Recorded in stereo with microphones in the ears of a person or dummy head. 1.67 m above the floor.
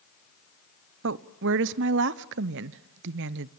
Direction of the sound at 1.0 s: 60° right (ahead or behind).